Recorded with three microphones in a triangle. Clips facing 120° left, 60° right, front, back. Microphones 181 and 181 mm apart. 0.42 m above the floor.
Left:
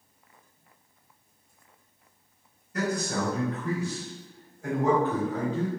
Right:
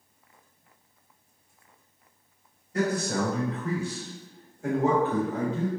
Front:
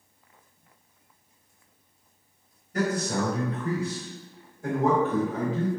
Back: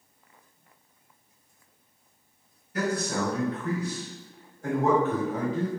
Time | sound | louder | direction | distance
2.7 | a man speaking | right 2 dB, front 1 dB | 10° right | 1.5 m